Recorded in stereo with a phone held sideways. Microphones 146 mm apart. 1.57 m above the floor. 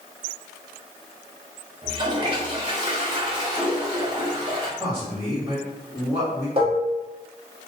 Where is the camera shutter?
No camera shutter in this recording.